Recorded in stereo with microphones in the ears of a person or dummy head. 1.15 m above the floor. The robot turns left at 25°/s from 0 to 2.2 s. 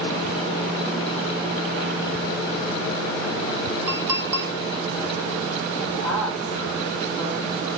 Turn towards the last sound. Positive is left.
turn(degrees=5)  # may be behind; listen again after turning